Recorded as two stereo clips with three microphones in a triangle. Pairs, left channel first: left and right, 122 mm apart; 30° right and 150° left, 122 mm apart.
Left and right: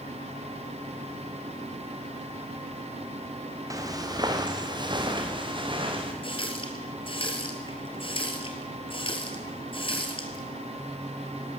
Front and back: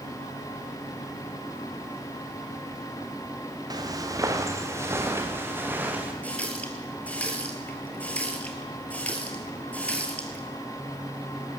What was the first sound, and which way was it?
Footsteps, 150° right.